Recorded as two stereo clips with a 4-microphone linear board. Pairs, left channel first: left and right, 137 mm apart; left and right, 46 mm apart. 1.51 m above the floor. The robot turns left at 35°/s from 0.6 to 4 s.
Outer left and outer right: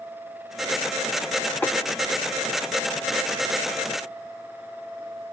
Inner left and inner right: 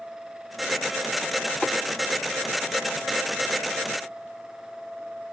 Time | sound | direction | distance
1.6 | tapping | 15° left (ahead or behind) | 2.5 m